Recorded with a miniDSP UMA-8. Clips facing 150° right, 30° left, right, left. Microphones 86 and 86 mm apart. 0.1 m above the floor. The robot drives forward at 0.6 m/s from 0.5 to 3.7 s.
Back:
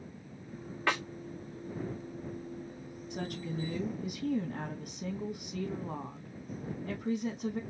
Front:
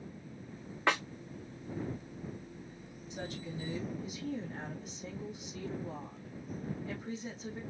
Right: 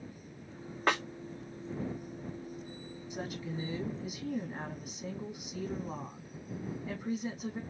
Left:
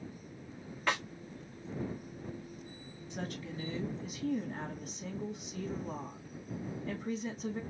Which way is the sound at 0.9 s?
40° right.